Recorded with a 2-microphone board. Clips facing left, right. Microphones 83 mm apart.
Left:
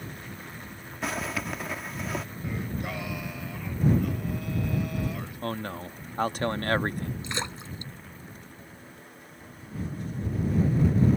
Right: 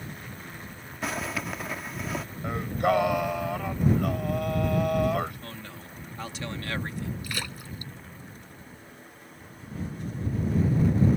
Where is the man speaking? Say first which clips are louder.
Left 9 dB; 45° left (ahead or behind).